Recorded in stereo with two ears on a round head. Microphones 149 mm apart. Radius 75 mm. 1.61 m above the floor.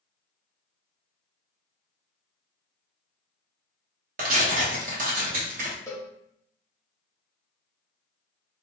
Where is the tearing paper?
50° right (ahead or behind), 0.9 m.